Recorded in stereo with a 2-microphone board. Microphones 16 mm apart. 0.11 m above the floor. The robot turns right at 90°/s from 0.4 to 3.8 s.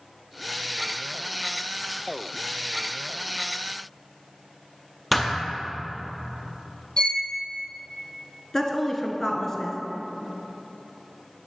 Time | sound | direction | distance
5.1 | a thud | 5° right (ahead or behind) | 1.1 m
7.0 | a violin | 65° left (ahead or behind) | 0.5 m
8.5 | a woman speaking | 20° left (ahead or behind) | 1.1 m